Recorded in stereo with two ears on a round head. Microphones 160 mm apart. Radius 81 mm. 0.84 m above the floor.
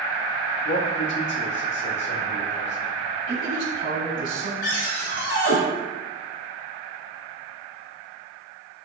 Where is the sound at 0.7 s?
75° left (ahead or behind), 1.1 m; by 2.9 s 70° left (ahead or behind), 2.5 m.